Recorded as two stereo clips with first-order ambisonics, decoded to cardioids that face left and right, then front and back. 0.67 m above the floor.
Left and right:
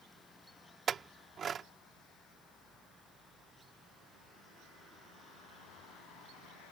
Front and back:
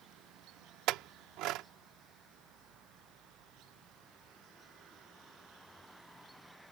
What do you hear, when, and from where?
0.9 s a clink: 155° right